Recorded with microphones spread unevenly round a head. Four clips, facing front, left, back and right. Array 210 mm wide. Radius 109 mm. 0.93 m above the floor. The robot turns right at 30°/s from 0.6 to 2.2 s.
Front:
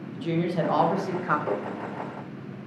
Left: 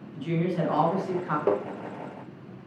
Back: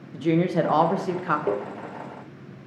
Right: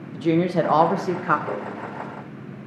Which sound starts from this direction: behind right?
A woman speaking, at 0.1 s.